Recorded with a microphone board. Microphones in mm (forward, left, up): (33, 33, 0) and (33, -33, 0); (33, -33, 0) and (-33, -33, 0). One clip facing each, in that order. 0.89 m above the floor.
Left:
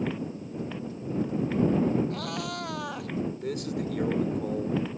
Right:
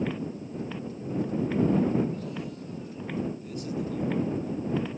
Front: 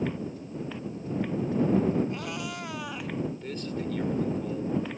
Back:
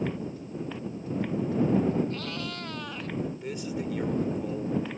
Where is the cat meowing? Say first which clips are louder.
Left 2 dB, even; 75° left; by 3.1 s 85° left.